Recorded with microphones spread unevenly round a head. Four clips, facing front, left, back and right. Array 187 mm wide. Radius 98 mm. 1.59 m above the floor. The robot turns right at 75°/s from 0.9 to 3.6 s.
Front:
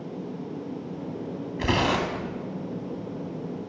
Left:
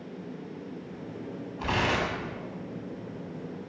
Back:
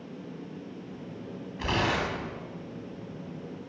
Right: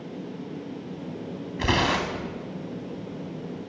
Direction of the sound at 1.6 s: 60° right.